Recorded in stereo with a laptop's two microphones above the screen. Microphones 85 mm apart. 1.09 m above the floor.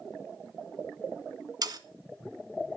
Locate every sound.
1.6 s sawing: 50° right (ahead or behind), 1.0 m